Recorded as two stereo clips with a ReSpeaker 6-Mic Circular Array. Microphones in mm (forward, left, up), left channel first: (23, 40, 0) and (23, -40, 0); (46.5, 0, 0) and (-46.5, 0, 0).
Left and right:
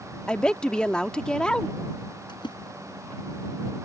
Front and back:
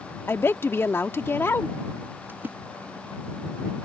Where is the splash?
110° left.